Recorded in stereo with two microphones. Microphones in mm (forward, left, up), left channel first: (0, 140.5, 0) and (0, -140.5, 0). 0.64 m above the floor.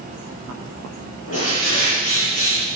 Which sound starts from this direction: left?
A bird, at 1.3 s.